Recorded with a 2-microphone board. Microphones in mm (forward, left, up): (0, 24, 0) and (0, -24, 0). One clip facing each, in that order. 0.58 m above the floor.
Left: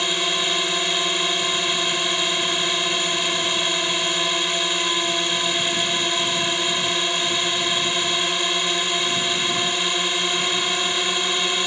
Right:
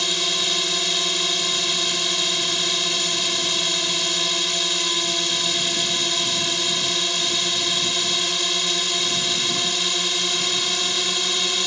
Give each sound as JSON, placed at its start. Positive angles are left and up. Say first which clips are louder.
{"t": 0.0, "sound": "a drone", "louder": "left 2 dB", "side_deg": 20}